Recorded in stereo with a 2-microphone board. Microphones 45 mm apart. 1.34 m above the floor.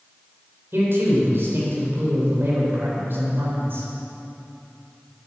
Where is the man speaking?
55° right (ahead or behind), 4.5 m.